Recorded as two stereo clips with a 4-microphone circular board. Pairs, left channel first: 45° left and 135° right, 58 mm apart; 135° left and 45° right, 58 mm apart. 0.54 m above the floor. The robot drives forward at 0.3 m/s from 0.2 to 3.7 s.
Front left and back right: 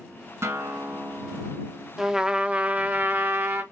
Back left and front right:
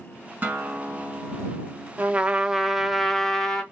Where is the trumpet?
70° right, 0.5 m; by 3.6 s 155° right, 0.6 m.